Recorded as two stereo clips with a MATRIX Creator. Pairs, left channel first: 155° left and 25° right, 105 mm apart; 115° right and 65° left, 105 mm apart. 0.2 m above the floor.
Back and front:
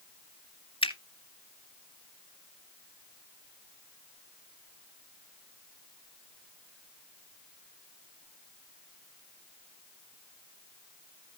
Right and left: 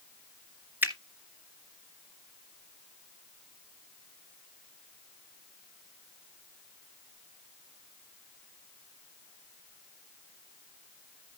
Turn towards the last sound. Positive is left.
turn(degrees=140)